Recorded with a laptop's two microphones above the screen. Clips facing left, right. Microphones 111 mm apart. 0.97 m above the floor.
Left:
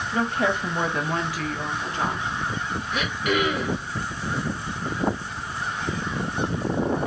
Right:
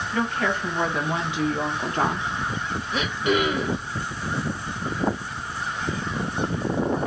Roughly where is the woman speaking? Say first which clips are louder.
Left 1 dB; left.